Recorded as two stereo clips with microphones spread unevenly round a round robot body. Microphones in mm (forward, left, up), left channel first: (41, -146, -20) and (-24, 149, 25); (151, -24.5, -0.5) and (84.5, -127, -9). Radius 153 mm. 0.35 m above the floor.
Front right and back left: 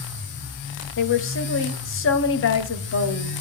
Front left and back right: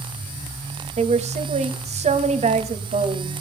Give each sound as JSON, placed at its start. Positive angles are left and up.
{"t": 1.0, "sound": "a woman speaking", "azimuth_deg": -115, "distance_m": 1.8}